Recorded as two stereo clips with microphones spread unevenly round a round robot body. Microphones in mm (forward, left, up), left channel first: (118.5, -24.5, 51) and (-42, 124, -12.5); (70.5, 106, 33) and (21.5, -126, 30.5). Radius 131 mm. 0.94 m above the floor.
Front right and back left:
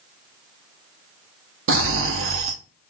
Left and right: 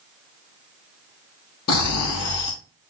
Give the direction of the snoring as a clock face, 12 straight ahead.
8 o'clock.